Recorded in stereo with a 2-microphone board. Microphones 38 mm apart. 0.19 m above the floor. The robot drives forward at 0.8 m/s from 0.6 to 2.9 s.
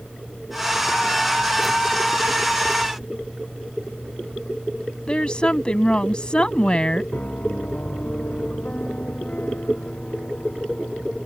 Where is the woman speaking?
25° left (ahead or behind).